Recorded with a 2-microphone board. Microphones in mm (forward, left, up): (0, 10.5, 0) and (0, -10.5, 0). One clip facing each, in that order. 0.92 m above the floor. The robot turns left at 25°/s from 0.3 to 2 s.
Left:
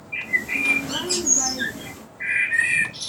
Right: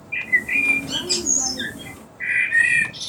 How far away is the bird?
About 1.2 m.